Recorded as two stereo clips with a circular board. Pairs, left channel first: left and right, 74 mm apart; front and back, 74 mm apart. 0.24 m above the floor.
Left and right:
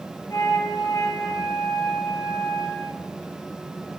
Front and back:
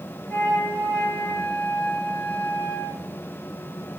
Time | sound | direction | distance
0.3 | a flute | 75° left | 3.5 m